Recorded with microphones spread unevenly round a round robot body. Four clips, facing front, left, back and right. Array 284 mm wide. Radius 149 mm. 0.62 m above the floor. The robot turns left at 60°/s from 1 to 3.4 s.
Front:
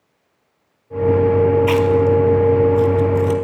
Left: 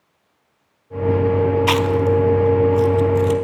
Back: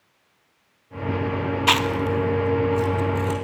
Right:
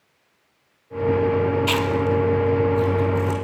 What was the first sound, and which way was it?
Chewing, 145° left.